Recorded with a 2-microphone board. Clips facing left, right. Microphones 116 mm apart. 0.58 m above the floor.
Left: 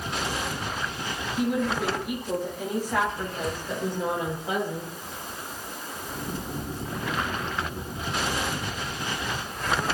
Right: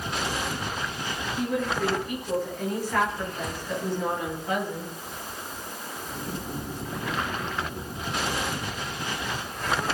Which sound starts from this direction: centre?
A woman speaking, at 1.4 s.